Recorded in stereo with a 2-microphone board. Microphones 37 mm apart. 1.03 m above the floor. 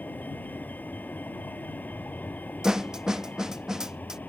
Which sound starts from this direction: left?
A vehicle, at 0.0 s.